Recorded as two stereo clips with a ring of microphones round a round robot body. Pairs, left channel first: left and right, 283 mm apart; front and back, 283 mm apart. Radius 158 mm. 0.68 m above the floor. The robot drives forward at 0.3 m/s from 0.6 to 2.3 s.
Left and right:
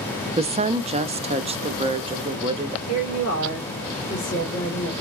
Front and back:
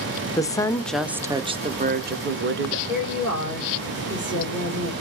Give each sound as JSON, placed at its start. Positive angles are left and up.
{"t": 0.4, "sound": "a woman speaking", "azimuth_deg": -60, "distance_m": 0.6}
{"t": 2.9, "sound": "a woman speaking", "azimuth_deg": 125, "distance_m": 3.0}